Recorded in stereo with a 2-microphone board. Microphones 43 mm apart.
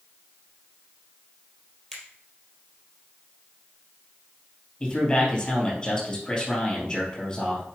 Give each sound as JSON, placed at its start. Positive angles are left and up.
{"t": 1.9, "sound": "a finger snap", "side_deg": 5, "distance_m": 3.0}
{"t": 4.8, "sound": "a man speaking", "side_deg": 15, "distance_m": 3.0}